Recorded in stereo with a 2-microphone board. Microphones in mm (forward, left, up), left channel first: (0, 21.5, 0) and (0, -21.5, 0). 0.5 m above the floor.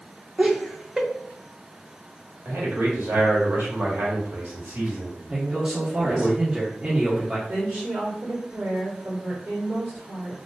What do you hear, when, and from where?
0.4 s laughter: 15° right (ahead or behind), 0.7 m
2.5 s a man speaking: 65° right (ahead or behind), 1.6 m
5.3 s a man speaking: 15° right (ahead or behind), 1.1 m
7.5 s a woman speaking: 55° right (ahead or behind), 1.6 m